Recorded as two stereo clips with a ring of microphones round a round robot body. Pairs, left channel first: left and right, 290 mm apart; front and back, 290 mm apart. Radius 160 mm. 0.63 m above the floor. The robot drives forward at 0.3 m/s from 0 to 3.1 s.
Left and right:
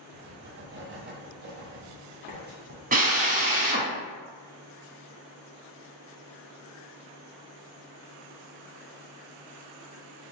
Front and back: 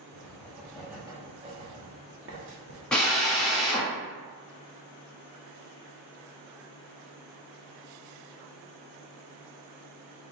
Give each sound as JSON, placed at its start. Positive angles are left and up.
{"t": 0.1, "sound": "writing", "azimuth_deg": -65, "distance_m": 0.7}
{"t": 2.9, "sound": "a drill", "azimuth_deg": -85, "distance_m": 1.0}